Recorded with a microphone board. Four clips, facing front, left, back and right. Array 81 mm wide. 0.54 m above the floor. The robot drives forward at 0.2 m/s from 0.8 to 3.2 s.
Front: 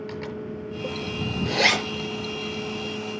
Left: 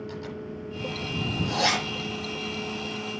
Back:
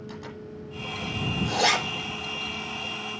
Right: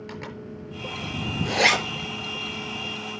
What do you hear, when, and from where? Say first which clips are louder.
0.1 s a zipper: left 1 dB, front 6 dB; 65° right, 5.5 m